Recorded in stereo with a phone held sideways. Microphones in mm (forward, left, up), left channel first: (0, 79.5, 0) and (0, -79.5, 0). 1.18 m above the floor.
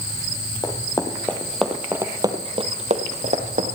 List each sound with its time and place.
0.6 s running footsteps: 25° left (ahead or behind), 2.5 m; by 3.8 s 65° right (ahead or behind), 2.5 m